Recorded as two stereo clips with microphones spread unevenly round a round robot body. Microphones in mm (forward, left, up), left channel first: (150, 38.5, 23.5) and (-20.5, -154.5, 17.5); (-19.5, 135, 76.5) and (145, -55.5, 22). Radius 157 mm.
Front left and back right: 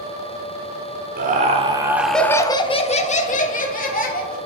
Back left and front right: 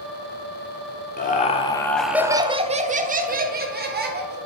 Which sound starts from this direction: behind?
Laughter, at 1.2 s.